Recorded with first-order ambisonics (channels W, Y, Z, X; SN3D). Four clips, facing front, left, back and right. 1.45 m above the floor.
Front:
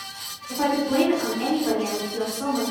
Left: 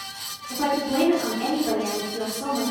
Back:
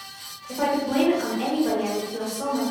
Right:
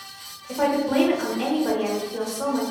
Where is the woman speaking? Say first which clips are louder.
Right 2 dB, front 1 dB; 110° right, 1.1 m.